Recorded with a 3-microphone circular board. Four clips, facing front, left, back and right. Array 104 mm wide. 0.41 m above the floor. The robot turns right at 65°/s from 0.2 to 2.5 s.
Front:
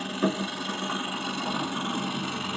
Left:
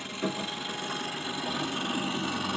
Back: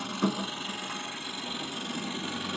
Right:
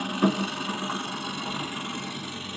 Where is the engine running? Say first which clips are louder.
Right 8 dB, front 3 dB; 105° right, 3 m; by 2.6 s 40° left, 3 m.